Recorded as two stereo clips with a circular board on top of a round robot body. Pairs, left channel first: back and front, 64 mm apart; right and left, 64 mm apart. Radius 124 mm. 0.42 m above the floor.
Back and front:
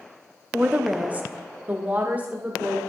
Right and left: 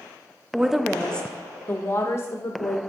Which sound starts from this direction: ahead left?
A woman speaking, at 0.5 s.